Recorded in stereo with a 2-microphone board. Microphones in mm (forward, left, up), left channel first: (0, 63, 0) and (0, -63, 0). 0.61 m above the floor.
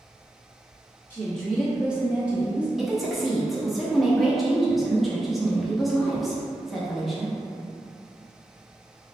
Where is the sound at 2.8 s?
Centre (ahead or behind), 0.5 m.